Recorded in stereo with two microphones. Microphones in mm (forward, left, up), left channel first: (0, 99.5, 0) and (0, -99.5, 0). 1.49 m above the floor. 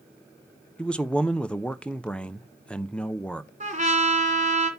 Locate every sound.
0.8 s a man speaking: 5° left (ahead or behind), 0.6 m
3.6 s a trumpet: 35° right (ahead or behind), 2.5 m